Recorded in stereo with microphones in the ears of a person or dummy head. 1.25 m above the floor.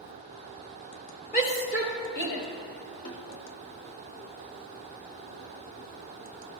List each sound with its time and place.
1.3 s a shout: 45° left (ahead or behind), 2.5 m; by 2.4 s 55° left (ahead or behind), 4 m
3.0 s a snare drum: 55° left (ahead or behind), 2.5 m